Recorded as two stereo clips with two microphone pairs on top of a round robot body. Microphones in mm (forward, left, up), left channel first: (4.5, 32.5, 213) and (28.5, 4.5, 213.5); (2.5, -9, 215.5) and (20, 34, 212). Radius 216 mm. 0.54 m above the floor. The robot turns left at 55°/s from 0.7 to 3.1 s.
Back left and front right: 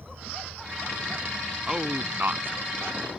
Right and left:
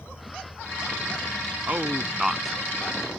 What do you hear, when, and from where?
0.0 s an insect: 75° right; by 3.2 s 155° left
1.7 s a man speaking: 25° left; by 3.0 s 50° right